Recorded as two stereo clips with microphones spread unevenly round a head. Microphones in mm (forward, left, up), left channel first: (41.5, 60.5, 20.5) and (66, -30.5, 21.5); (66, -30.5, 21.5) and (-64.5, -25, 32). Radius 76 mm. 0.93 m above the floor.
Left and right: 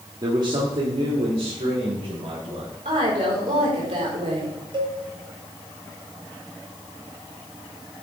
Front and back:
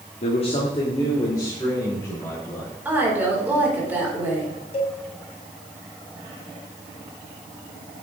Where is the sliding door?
No sliding door in this recording.